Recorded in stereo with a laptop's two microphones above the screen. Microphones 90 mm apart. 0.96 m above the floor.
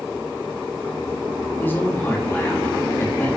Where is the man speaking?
20° left (ahead or behind), 1.7 m.